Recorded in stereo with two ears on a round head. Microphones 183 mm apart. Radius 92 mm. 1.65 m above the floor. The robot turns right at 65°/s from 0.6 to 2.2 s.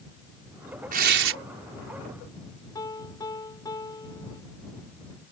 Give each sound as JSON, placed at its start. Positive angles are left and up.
{"t": 0.9, "sound": "tearing paper", "azimuth_deg": -135}
{"t": 2.8, "sound": "a piano", "side_deg": 20}